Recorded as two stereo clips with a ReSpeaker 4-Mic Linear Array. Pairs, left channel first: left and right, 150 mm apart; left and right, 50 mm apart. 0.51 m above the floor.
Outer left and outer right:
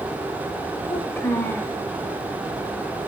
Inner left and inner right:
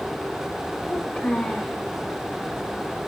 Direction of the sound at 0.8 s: 15° left (ahead or behind).